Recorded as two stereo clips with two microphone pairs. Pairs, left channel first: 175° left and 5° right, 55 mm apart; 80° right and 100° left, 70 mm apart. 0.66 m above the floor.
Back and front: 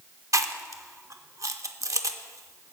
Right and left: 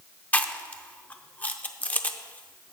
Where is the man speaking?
I don't hear a man speaking.